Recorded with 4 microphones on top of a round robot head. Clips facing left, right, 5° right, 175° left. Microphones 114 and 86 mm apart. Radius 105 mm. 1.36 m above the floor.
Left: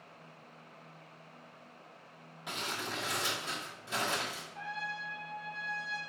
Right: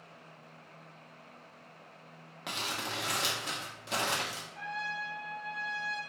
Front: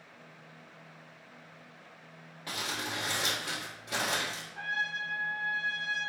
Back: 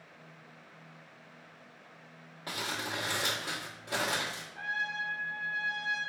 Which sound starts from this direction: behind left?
A trumpet, at 4.5 s.